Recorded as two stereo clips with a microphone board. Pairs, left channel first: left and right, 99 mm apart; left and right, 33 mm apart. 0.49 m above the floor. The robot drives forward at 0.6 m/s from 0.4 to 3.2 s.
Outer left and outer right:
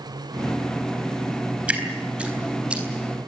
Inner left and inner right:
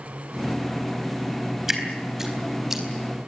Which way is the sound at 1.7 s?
15° right (ahead or behind).